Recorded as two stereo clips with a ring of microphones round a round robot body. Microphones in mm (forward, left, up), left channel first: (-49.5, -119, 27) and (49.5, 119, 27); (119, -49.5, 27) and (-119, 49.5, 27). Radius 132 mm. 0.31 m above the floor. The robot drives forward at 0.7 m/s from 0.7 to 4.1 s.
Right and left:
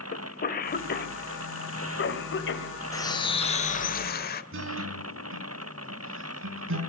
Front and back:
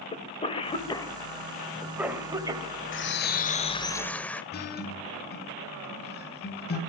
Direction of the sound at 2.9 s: 40° right.